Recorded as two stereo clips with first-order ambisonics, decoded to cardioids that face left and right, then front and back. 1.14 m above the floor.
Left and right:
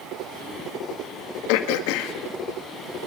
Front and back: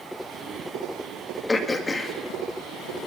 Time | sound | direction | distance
1.5 | throat clearing | 80° left | 1.8 m